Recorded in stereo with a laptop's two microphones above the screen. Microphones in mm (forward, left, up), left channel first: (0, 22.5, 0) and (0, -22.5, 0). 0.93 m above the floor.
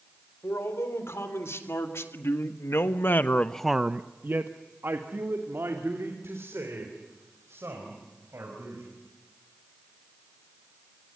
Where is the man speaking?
80° left, 4 m; by 8.9 s 80° right, 6.5 m.